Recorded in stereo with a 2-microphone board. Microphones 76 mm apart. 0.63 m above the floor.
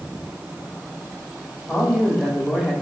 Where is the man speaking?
Centre (ahead or behind), 2.5 m.